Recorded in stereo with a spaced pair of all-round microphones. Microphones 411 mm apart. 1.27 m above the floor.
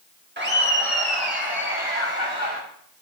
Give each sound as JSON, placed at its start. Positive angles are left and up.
{"t": 0.4, "sound": "laughter", "side_deg": -25, "distance_m": 2.0}